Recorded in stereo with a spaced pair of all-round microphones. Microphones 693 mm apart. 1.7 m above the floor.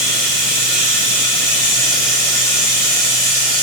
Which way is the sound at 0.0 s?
50° right (ahead or behind).